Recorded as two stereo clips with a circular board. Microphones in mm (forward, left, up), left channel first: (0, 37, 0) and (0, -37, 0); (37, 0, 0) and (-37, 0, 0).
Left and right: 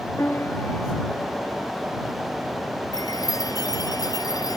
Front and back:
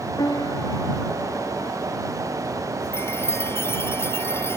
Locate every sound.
0.2 s a piano: 30° left
2.9 s a chime: 55° left